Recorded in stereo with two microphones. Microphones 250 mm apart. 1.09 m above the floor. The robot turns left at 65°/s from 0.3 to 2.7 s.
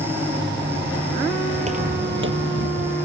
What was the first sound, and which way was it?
Footsteps, 25° right (ahead or behind).